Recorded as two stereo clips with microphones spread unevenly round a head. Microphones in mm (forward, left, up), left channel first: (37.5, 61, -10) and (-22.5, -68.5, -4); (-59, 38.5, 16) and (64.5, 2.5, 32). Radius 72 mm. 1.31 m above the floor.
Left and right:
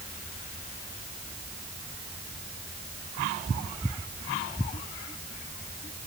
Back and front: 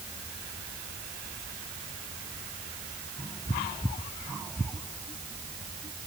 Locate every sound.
Only background noise.